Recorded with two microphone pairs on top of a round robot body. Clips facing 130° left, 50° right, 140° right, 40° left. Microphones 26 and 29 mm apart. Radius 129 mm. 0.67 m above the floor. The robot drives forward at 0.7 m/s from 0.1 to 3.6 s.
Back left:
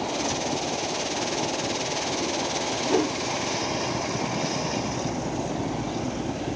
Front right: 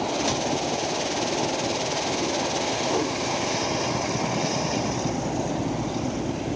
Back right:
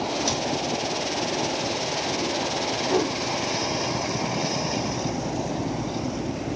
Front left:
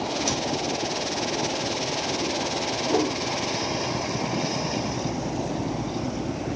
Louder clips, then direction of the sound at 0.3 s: Front right 3 dB, back right 1 dB; 70° right.